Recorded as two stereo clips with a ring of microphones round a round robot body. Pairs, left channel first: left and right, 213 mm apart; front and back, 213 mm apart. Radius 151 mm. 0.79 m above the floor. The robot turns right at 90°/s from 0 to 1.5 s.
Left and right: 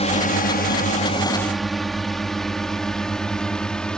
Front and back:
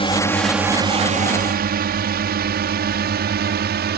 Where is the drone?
45° left; by 4.0 s 175° left.